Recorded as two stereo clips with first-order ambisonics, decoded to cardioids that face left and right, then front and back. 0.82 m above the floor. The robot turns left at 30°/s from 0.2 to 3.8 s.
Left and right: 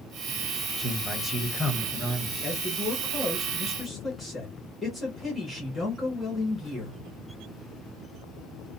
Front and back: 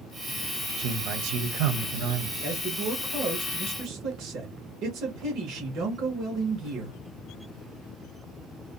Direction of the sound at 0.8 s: 155° right.